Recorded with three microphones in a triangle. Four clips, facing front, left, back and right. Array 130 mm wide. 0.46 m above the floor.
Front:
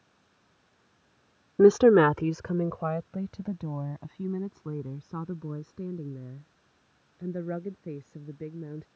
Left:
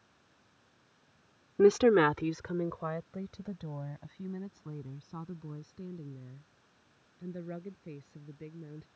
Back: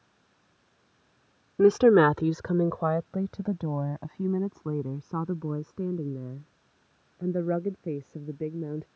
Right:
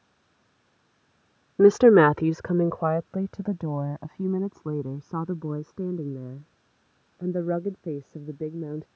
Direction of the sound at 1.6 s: 65° right.